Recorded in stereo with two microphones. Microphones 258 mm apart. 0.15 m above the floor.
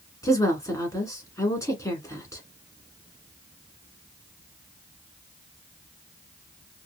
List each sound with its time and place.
0.2 s a woman speaking: 10° left (ahead or behind), 1.4 m